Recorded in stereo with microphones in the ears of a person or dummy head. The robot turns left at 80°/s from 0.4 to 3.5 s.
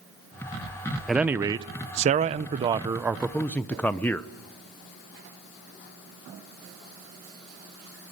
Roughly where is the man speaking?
Ahead.